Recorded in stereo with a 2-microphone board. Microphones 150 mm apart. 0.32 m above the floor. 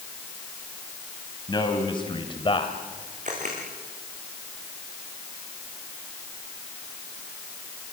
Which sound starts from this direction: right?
A camera shutter, at 3.2 s.